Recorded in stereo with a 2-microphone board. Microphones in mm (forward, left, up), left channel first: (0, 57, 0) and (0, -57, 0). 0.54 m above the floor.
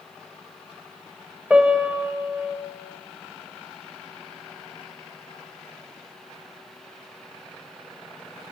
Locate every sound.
1.5 s a piano: 10° right (ahead or behind), 1.4 m